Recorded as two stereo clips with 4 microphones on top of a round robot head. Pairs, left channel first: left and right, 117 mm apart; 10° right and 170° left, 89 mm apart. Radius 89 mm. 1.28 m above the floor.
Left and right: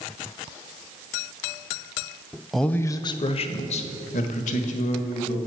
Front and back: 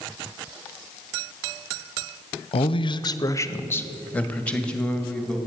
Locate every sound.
2.5 s a man speaking: straight ahead, 0.6 m; by 5.4 s 70° left, 2 m